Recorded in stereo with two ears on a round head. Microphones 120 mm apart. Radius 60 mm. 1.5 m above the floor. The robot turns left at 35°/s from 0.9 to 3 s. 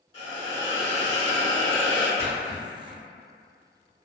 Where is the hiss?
100° left, 1.9 m; by 2.1 s 55° left, 1.9 m.